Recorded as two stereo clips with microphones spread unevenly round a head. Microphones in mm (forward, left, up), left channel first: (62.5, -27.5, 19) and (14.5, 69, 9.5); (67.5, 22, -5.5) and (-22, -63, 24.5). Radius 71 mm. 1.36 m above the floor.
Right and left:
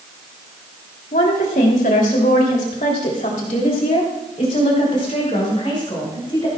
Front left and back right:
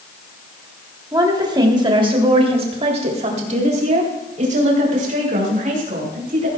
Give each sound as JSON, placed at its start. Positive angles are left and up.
{"t": 1.1, "sound": "a woman speaking", "azimuth_deg": -75, "distance_m": 3.5}